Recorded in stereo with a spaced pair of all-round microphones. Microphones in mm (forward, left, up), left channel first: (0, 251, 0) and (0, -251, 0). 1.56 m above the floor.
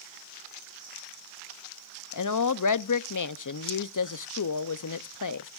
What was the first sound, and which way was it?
A woman speaking, 40° left (ahead or behind).